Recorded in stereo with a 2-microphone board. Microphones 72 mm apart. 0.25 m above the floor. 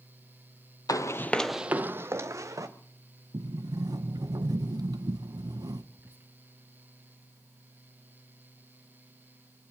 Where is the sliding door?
65° right (ahead or behind), 0.6 m.